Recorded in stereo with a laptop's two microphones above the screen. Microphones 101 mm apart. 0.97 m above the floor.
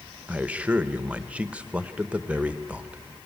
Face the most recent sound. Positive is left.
turn(degrees=-10)  # may be behind; listen again after turning